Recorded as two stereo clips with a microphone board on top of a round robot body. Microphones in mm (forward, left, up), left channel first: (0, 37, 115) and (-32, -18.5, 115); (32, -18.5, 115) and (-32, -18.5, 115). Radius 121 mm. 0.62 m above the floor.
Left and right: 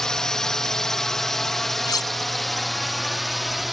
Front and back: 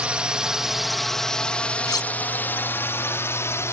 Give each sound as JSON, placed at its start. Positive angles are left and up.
{"t": 0.0, "sound": "a drone", "azimuth_deg": 130}
{"t": 1.9, "sound": "cutlery clinking", "azimuth_deg": 30}